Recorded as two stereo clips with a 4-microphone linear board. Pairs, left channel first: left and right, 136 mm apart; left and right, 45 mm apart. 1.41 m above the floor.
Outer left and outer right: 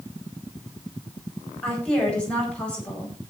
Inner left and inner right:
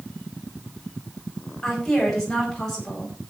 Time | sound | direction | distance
1.6 | a woman speaking | 10° left (ahead or behind) | 10 m